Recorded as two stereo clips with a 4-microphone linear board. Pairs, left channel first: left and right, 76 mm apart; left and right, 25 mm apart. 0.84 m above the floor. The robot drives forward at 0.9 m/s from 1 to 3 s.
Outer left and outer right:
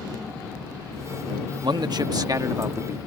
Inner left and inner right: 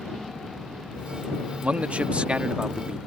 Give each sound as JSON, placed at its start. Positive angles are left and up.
{"t": 1.6, "sound": "a man speaking", "side_deg": -65}